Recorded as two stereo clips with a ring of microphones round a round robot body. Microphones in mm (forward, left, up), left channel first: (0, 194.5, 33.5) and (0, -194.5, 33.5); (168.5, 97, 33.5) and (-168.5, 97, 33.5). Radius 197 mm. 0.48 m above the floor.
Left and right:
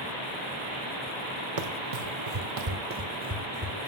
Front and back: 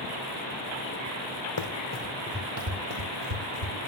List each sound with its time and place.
1.6 s running footsteps: 45° right, 1.1 m; by 3.9 s 175° right, 1.9 m